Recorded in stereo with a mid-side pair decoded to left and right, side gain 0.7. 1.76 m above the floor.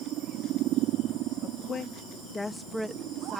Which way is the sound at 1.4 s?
40° left.